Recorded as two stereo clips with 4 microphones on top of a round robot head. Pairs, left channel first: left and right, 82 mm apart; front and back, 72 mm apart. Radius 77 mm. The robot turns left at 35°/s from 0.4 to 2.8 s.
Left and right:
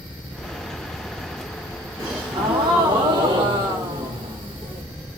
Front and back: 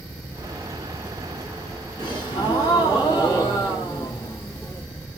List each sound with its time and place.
2.0 s a gasp: 30° right, 2.5 m; by 4.8 s 60° right, 2.5 m